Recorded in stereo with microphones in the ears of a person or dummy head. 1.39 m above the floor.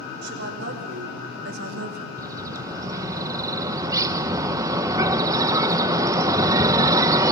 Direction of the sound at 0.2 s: 60° right (ahead or behind).